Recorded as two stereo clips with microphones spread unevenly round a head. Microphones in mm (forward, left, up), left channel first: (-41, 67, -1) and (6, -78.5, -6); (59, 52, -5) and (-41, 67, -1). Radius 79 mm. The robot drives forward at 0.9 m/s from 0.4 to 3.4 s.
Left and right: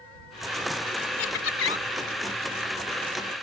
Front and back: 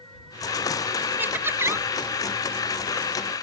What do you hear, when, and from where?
1.2 s laughter: 100° left; by 1.9 s 110° left